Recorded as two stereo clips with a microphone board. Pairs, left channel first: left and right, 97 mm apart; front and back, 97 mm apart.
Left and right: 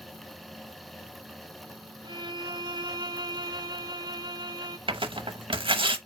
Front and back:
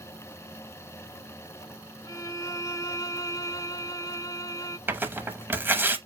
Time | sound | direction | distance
2.0 | a violin | 55° right | 0.7 m
4.9 | tearing paper | 115° right | 0.8 m